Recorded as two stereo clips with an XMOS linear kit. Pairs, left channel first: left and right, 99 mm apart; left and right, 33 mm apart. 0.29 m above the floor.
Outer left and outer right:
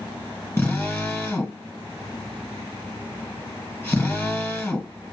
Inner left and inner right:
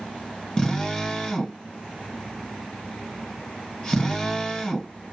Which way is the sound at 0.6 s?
20° left (ahead or behind).